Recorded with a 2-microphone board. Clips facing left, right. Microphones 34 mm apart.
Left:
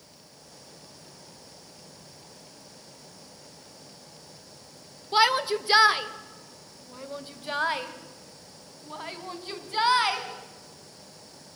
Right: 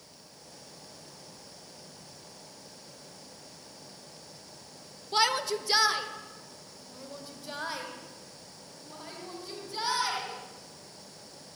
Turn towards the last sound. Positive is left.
turn(degrees=50)  # may be behind; listen again after turning